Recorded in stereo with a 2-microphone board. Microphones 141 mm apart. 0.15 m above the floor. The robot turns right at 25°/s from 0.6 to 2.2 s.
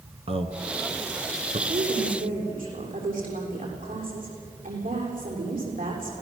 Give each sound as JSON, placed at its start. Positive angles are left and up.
{"t": 0.3, "sound": "a man speaking", "side_deg": -45, "distance_m": 1.6}
{"t": 1.7, "sound": "a woman speaking", "side_deg": -60, "distance_m": 7.0}